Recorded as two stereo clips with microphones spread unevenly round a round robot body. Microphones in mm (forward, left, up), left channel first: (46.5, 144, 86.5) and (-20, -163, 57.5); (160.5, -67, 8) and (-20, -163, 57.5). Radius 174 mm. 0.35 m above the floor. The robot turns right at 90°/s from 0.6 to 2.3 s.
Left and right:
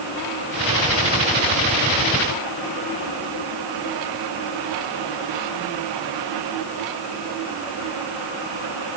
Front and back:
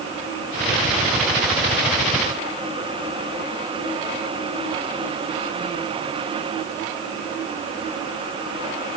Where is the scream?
I don't hear a scream.